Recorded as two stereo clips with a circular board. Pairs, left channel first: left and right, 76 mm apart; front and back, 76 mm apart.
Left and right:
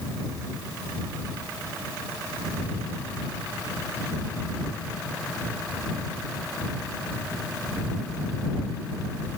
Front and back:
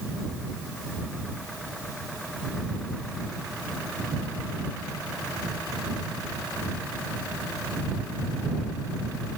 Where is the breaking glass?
No breaking glass in this recording.